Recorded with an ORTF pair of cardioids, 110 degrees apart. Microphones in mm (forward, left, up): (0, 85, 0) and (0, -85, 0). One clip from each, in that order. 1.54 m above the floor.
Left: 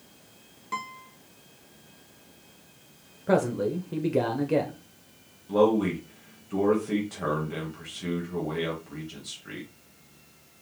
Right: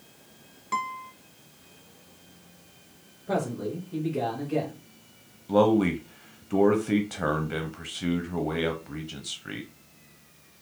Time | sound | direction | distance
0.7 | a guitar | 10° right | 1.1 m
3.3 | a man speaking | 55° left | 1.0 m
5.5 | a man speaking | 30° right | 1.0 m